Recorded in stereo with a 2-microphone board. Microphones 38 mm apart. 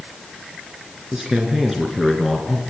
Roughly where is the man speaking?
Centre.